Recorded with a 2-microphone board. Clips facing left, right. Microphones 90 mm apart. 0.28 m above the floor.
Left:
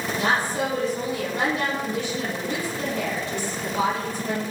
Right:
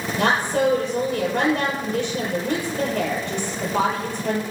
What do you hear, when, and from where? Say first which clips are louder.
0.2 s a woman speaking: right 4 dB; 70° right (ahead or behind), 6.5 m